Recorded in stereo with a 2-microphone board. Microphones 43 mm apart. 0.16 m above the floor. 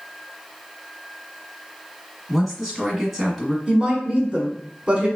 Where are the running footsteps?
I don't hear running footsteps.